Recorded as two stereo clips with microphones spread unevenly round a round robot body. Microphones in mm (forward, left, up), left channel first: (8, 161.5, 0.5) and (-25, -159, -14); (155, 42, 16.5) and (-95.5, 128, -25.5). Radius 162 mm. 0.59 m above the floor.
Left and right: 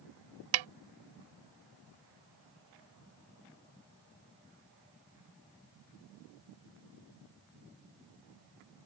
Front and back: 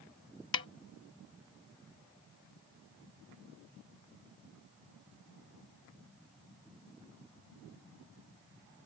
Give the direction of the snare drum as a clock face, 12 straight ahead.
3 o'clock.